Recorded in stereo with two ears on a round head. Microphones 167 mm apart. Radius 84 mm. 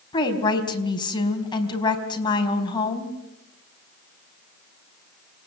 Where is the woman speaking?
25° left (ahead or behind), 4 m.